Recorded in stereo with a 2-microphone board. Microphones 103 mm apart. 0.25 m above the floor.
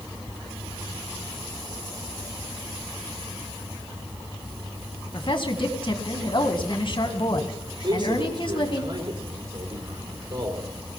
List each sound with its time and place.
5.1 s a woman speaking: 55° left (ahead or behind), 1.9 m
7.8 s a man speaking: 50° right (ahead or behind), 5 m